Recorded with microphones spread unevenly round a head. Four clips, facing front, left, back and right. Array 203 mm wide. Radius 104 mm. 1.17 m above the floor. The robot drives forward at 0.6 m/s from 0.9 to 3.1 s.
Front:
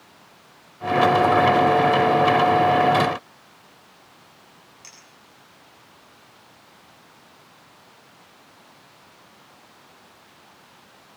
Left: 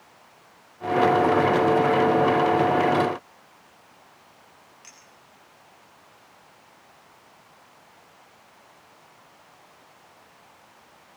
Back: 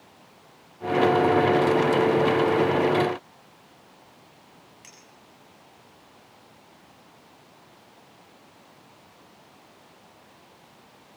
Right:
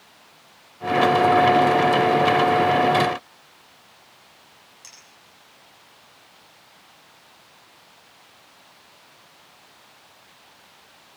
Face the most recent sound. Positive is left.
turn(degrees=-155)